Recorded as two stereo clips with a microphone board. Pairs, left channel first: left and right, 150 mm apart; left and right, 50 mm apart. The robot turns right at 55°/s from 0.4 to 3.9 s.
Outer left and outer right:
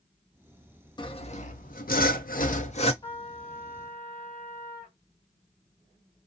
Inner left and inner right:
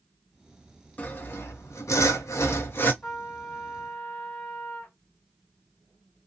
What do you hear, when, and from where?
1.0 s sawing: 30° left, 0.6 m; by 2.9 s 140° left, 0.6 m
3.0 s a trumpet: 35° left, 1.1 m; by 5.0 s 85° left, 1.1 m